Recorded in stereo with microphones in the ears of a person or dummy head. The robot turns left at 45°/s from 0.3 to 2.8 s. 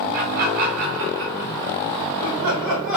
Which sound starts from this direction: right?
Laughter, at 0.1 s.